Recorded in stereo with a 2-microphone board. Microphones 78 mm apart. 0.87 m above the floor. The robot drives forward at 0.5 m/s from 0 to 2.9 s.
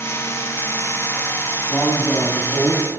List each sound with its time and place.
1.7 s a man speaking: 15° left (ahead or behind), 1.9 m; by 2.9 s 20° left (ahead or behind), 1.4 m